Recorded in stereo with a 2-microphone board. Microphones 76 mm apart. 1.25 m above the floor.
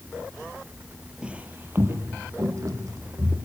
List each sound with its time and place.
1.2 s footsteps: 15° right (ahead or behind), 1.3 m; by 3.4 s 55° right (ahead or behind), 3 m